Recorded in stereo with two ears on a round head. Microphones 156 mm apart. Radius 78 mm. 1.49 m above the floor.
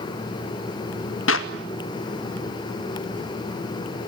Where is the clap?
85° left, 2 m.